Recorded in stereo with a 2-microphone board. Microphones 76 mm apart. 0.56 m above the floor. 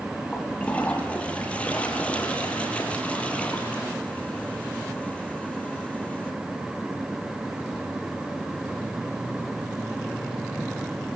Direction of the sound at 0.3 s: 15° left (ahead or behind).